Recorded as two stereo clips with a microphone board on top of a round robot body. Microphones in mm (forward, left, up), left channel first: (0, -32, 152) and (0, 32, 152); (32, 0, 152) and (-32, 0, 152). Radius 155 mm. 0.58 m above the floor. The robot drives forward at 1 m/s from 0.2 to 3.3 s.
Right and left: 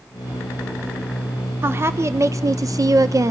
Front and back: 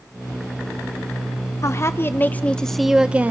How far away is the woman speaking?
About 1.6 m.